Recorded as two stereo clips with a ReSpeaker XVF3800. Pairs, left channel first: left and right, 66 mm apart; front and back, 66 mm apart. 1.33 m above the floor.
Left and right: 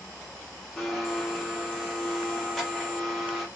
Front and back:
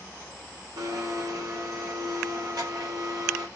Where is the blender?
175° left, 1.7 m.